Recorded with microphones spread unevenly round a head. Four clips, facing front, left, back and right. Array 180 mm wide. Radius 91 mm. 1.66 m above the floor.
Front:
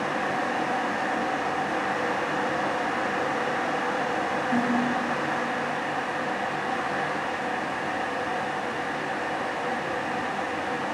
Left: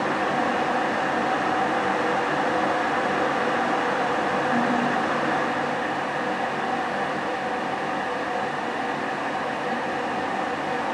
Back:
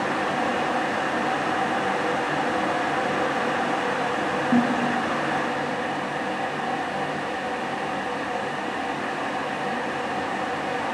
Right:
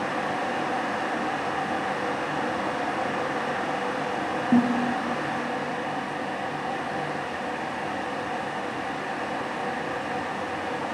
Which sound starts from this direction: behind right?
A snare drum, at 4.5 s.